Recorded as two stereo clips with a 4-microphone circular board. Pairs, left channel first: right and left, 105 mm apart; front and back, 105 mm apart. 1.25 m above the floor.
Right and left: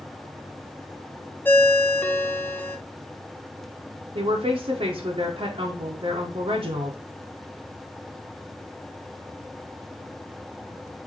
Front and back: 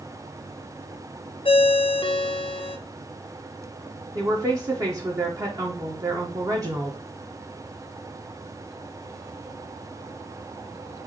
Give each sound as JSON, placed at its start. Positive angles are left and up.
{"t": 1.4, "sound": "a ringtone", "azimuth_deg": -20, "distance_m": 0.6}
{"t": 4.2, "sound": "a woman speaking", "azimuth_deg": 125, "distance_m": 0.9}